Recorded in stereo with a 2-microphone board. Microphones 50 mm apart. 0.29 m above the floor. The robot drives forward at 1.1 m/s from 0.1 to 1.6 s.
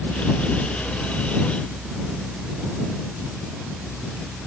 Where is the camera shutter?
No camera shutter in this recording.